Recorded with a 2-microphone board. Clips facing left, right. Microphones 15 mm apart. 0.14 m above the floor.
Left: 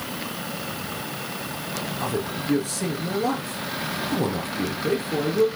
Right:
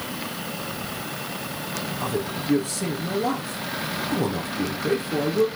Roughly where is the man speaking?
Centre.